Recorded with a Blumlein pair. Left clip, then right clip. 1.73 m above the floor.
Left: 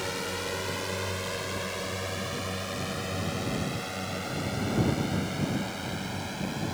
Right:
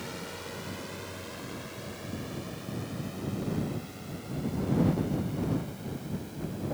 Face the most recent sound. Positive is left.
turn(degrees=55)